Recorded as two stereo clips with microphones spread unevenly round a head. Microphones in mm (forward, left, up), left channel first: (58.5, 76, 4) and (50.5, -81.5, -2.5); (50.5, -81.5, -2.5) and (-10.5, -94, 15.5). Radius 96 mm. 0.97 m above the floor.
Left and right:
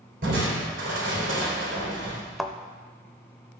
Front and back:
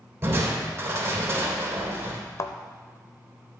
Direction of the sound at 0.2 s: 120° right.